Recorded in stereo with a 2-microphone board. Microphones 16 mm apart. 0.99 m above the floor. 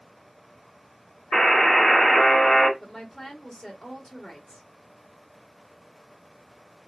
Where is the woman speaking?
35° left (ahead or behind), 1.9 m.